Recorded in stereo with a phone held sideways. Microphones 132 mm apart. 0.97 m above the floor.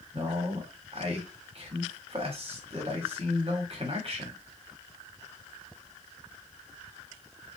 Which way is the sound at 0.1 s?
45° right (ahead or behind).